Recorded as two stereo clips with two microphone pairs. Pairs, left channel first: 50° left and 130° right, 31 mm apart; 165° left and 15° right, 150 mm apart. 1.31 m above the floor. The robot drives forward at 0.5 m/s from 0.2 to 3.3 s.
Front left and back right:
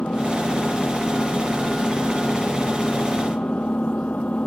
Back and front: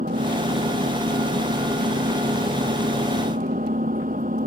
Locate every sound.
0.0 s an engine running: 10° left